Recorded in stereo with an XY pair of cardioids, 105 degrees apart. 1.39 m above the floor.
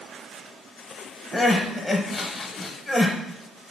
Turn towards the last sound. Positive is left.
turn(degrees=15)